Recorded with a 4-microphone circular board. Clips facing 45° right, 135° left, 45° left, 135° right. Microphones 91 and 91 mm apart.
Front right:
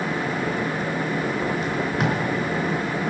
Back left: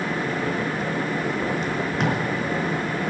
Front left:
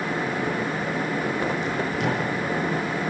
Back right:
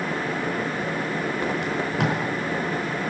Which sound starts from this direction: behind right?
Tape being pulled, at 1.6 s.